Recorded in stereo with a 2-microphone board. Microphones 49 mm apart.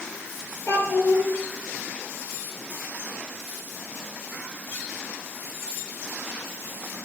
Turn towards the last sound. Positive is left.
turn(degrees=55)  # may be behind; listen again after turning